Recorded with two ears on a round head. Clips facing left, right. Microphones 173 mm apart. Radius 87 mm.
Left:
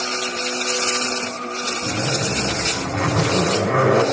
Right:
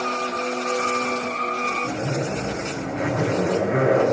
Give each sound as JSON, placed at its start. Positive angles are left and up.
{"t": 1.8, "sound": "a zipper", "side_deg": 75, "distance_m": 8.0}